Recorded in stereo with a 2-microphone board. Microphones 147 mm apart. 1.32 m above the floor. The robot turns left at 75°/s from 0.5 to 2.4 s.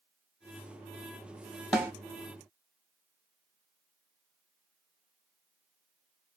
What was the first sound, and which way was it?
A snare drum, 5° right (ahead or behind).